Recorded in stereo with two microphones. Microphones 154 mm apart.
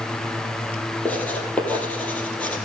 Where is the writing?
10° left (ahead or behind), 3 m.